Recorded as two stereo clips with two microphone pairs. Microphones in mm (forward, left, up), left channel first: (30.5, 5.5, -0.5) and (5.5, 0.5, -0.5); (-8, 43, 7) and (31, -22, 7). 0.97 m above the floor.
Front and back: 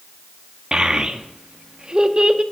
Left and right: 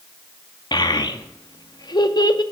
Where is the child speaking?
135° left, 0.6 m.